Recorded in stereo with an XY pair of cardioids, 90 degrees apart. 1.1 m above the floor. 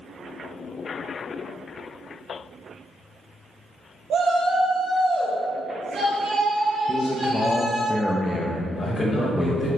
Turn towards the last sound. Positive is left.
turn(degrees=45)